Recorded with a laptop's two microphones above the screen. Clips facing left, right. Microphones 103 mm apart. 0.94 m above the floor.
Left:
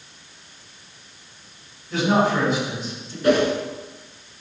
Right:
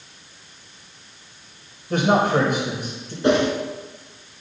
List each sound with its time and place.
1.9 s a man speaking: 55° right (ahead or behind), 4 m
3.2 s a whoosh: 25° right (ahead or behind), 2 m